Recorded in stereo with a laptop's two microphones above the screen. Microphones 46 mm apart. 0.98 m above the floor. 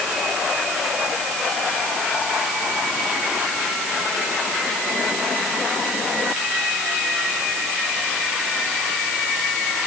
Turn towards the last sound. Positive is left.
No sound to turn to.